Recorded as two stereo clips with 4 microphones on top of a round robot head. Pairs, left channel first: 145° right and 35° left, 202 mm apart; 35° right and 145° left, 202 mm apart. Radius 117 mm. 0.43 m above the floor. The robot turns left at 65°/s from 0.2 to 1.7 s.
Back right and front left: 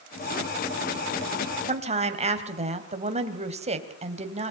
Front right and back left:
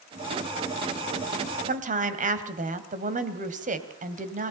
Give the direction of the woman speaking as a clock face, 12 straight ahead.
9 o'clock.